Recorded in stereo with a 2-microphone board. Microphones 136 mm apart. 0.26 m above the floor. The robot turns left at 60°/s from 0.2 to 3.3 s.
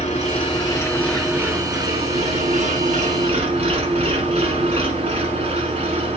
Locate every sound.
0.0 s an engine running: 60° left, 2.5 m; by 6.2 s 125° right, 2.5 m